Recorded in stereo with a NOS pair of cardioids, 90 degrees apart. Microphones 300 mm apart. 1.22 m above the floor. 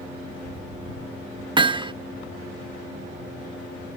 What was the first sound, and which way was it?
Hammering, 15° right.